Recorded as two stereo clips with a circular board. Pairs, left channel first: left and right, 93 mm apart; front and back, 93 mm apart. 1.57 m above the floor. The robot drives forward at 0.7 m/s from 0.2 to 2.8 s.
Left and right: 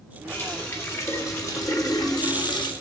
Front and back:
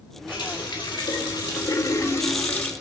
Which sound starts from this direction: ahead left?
A running tap, at 0.3 s.